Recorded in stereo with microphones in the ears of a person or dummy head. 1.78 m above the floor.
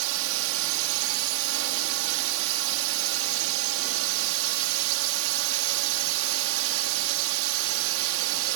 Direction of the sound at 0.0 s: 80° right.